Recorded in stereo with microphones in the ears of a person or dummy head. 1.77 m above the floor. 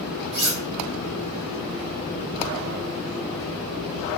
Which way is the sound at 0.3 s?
50° right (ahead or behind).